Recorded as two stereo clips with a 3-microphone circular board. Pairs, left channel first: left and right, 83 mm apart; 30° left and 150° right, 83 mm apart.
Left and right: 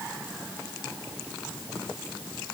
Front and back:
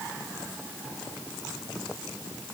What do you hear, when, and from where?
Only background noise.